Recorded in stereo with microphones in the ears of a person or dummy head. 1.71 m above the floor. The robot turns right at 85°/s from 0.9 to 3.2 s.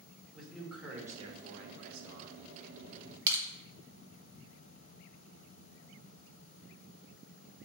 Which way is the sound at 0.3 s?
Straight behind.